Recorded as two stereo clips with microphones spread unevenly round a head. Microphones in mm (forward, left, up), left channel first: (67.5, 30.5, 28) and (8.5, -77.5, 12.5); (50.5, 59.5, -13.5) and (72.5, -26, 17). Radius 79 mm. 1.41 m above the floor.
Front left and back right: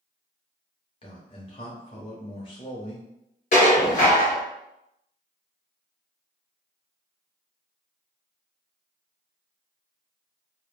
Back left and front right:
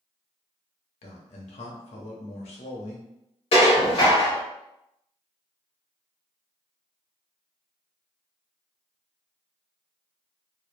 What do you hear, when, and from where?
1.0 s a man speaking: 120° left, 0.6 m
3.5 s dishes clattering: 85° left, 0.9 m